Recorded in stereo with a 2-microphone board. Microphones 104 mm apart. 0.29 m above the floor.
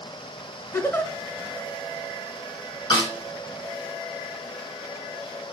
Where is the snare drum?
45° left (ahead or behind), 3 m.